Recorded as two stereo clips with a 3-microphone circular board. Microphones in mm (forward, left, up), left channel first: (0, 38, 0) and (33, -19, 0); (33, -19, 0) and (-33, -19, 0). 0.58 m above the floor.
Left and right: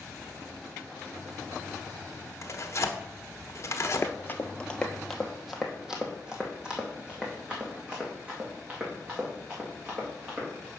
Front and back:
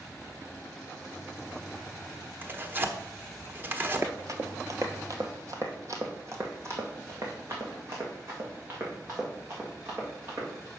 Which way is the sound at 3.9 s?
145° left.